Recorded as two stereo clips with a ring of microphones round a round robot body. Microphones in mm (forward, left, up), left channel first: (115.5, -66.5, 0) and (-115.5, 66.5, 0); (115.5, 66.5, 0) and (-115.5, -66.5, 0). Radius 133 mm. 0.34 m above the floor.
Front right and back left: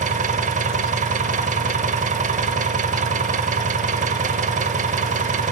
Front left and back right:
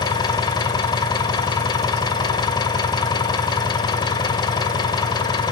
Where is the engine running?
100° left, 0.9 m.